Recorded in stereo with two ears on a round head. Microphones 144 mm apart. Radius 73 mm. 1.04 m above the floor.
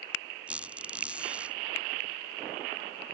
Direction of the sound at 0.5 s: 5° right (ahead or behind).